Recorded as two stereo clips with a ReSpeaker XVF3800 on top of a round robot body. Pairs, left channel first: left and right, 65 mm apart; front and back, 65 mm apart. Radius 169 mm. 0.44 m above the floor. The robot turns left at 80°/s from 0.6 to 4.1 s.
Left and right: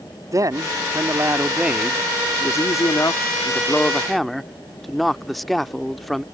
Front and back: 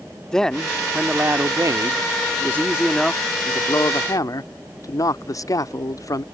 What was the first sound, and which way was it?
A man speaking, 80° right.